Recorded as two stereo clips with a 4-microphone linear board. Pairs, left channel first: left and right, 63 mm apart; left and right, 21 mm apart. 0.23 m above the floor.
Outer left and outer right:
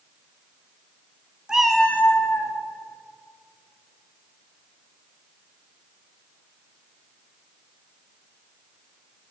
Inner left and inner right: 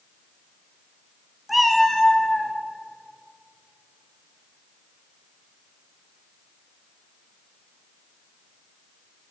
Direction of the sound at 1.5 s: 15° right (ahead or behind).